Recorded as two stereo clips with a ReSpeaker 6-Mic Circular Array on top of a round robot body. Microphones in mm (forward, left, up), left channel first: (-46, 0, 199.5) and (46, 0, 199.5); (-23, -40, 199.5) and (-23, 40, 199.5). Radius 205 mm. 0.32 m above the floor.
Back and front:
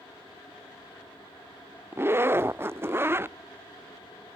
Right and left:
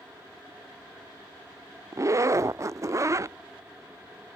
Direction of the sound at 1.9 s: 55° left.